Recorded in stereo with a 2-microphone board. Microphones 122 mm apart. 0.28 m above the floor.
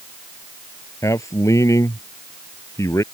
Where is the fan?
I don't hear a fan.